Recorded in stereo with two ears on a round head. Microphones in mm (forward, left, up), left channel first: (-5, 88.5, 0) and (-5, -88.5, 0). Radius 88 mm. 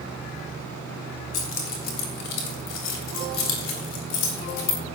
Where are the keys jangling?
40° left (ahead or behind), 3.5 m; by 4.8 s 65° left (ahead or behind), 4 m.